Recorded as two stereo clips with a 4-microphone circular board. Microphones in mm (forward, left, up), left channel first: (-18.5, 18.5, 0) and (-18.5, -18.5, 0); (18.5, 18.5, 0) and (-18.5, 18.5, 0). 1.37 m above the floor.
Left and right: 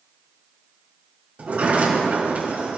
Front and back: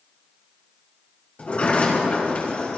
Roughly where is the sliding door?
Ahead right.